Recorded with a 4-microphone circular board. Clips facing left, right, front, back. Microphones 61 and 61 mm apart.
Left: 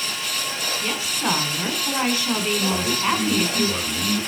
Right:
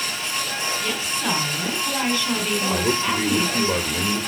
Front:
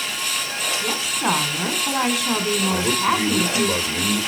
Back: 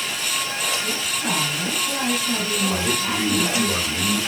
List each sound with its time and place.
0.8 s a woman speaking: 20° left, 2 m
2.7 s a man speaking: 70° right, 1.8 m